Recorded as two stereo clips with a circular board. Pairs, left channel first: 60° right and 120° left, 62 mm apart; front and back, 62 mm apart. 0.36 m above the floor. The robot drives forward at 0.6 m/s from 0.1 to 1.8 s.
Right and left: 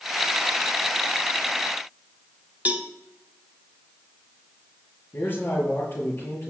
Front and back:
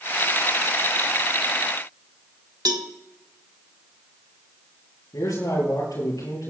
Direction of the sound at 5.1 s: 10° right.